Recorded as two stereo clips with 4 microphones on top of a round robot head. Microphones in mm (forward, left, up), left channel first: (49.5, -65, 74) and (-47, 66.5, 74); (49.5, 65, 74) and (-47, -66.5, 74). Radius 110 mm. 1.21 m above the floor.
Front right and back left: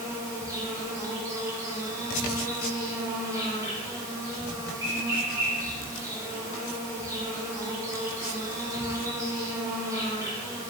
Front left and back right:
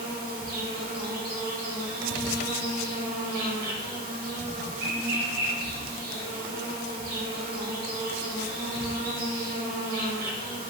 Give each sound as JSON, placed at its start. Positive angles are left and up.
{"t": 0.0, "sound": "an insect", "azimuth_deg": -160, "distance_m": 0.7}